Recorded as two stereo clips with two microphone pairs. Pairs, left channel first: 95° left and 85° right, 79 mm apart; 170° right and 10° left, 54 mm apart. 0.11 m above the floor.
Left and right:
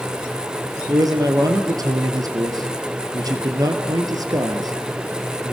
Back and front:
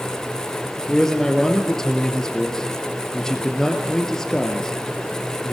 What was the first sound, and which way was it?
A man speaking, 90° right.